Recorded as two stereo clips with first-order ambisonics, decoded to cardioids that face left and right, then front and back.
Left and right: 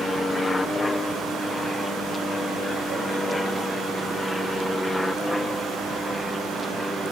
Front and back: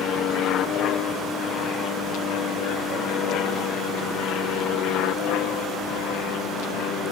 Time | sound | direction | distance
0.0 | an aircraft | 15° left | ?